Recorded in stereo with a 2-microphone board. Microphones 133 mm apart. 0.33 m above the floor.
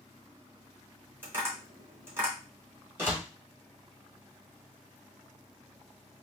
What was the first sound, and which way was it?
Tapping, 15° right (ahead or behind).